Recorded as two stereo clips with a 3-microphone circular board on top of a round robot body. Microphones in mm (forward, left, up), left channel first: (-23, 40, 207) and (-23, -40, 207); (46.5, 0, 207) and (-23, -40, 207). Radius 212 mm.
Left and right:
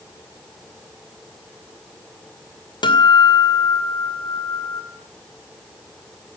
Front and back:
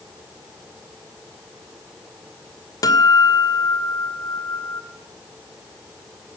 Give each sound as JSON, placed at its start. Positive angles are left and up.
{"t": 2.8, "sound": "a guitar", "azimuth_deg": 70, "distance_m": 3.0}